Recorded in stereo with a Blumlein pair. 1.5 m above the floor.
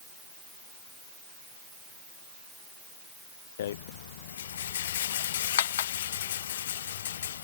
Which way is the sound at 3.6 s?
60° left.